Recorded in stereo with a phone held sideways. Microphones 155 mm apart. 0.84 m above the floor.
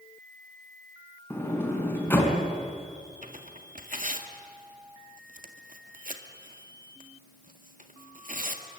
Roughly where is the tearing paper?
Right.